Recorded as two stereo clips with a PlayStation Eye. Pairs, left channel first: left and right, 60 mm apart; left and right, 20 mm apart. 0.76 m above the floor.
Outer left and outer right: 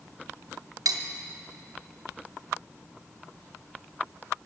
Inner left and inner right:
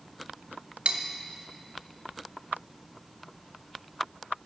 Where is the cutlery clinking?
80° right, 0.9 m.